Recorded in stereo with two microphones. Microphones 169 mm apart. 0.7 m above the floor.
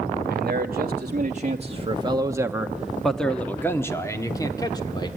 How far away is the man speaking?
About 1.4 m.